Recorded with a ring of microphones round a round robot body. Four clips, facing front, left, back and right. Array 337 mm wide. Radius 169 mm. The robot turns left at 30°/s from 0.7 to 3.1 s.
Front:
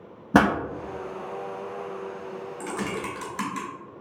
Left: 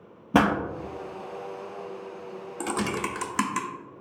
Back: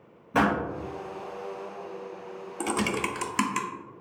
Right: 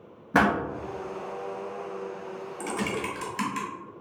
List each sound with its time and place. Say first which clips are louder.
0.3 s a pop: left 1 dB, front 4 dB; 20° left, 0.8 m
2.6 s typing on a keyboard: left 2 dB, back 4 dB; 145° left, 0.7 m; by 3.7 s 130° left, 0.7 m